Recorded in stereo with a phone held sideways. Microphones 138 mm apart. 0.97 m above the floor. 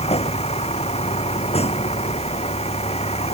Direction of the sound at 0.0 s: 50° left (ahead or behind).